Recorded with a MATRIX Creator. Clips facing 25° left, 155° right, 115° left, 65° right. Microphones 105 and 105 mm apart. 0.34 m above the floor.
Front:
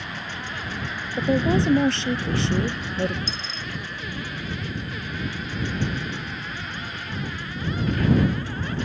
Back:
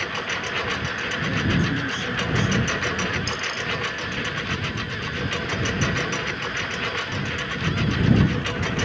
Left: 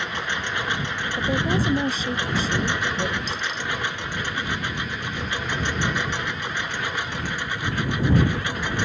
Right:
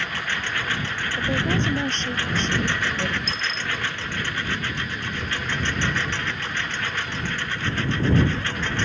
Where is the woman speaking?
30° left.